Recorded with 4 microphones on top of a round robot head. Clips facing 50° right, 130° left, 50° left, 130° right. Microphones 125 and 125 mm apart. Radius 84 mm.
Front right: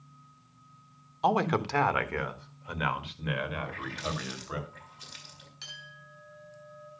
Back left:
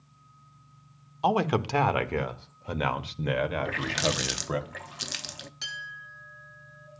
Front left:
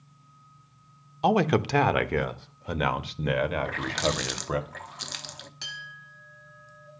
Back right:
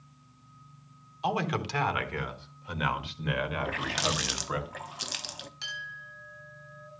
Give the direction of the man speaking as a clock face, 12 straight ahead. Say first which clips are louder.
Back left 1 dB, front left 8 dB; 10 o'clock.